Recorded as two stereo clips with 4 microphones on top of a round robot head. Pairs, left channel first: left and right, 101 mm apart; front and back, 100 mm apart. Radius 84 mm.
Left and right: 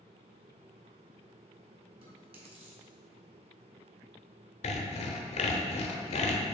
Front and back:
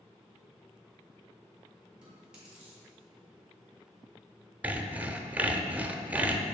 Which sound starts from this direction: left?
Sawing, at 4.6 s.